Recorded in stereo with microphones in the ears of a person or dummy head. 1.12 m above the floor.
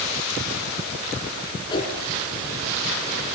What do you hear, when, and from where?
1.7 s a whoosh: 25° left (ahead or behind), 5 m